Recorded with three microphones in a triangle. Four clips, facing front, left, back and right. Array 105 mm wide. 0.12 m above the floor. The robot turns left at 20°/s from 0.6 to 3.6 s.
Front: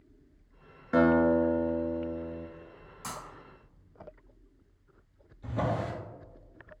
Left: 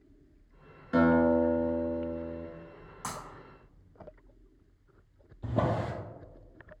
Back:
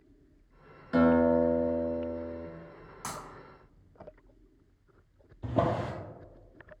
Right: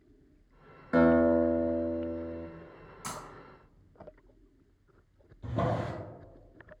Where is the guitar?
45° right, 0.6 m; by 2.5 s 75° right, 0.6 m.